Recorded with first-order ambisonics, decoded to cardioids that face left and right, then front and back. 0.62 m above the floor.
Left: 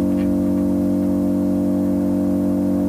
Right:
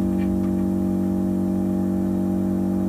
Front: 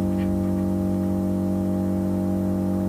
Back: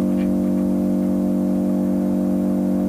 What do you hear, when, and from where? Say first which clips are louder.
0.0 s an engine running: left 5 dB, back 5 dB; 115° left, 0.8 m